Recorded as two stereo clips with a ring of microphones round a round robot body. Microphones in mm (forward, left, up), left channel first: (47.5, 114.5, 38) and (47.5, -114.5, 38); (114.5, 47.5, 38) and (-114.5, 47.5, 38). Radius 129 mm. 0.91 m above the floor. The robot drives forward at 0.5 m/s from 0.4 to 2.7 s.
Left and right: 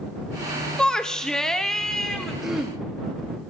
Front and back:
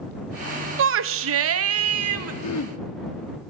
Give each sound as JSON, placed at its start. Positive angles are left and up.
{"t": 0.8, "sound": "a shout", "azimuth_deg": 175, "distance_m": 0.7}
{"t": 2.4, "sound": "throat clearing", "azimuth_deg": 0, "distance_m": 1.1}